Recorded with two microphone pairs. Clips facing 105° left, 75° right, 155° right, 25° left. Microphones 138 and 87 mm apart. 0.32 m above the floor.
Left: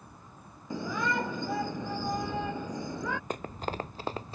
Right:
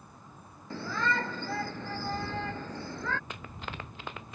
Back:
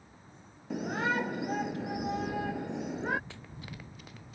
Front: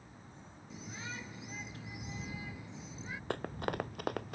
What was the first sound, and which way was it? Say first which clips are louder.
A shout: left 1 dB, back 16 dB; straight behind.